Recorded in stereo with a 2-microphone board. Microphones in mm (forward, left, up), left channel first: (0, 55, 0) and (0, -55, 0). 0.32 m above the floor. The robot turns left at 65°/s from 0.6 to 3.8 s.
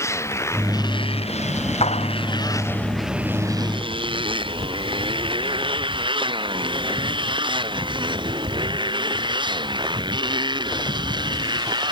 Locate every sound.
0.0 s a motorcycle: 25° left (ahead or behind); by 11.9 s 40° right (ahead or behind)
1.8 s a clap: 70° left (ahead or behind); by 2.1 s 85° left